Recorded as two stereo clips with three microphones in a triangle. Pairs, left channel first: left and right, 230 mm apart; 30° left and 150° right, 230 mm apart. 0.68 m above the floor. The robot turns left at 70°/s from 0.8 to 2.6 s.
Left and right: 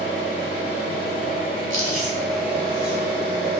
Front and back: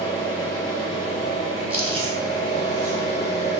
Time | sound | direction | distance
0.0 | an engine running | 110° left | 1.0 m
1.7 | chewing | 65° right | 0.8 m